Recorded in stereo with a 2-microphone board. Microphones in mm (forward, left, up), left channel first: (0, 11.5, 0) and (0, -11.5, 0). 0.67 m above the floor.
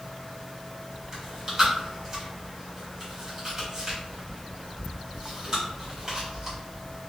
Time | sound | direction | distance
1.1 | chewing | 25° right (ahead or behind) | 1.6 m